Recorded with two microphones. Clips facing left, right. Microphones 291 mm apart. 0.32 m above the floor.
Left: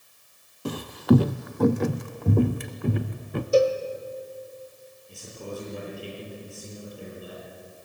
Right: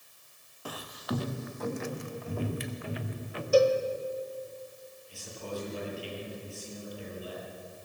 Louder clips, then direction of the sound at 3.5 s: Left 2 dB; 25° left (ahead or behind).